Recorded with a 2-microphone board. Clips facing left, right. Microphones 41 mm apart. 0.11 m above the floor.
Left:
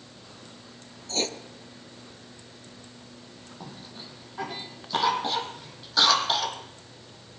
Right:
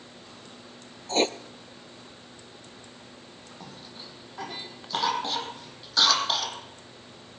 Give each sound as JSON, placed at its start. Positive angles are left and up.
{"t": 1.1, "sound": "writing", "side_deg": -35, "distance_m": 0.9}
{"t": 3.6, "sound": "a cough", "side_deg": 5, "distance_m": 4.5}